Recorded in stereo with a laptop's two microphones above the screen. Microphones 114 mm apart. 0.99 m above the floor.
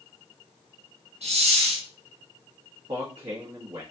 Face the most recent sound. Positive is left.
turn(degrees=-65)  # may be behind; listen again after turning